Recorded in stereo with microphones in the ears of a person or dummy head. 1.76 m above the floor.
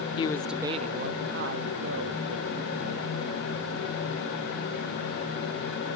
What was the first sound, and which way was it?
A man speaking, 30° left (ahead or behind).